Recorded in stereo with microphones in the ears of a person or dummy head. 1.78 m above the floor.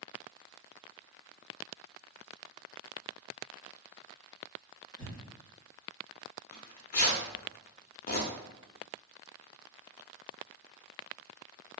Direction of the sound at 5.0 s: 25° left (ahead or behind).